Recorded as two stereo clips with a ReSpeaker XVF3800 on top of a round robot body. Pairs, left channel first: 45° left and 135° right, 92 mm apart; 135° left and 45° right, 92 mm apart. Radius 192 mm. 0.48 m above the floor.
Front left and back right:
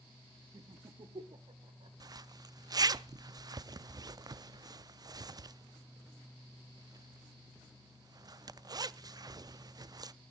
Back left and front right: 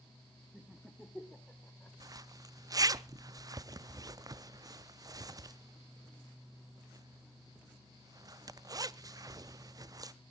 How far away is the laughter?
About 1.7 m.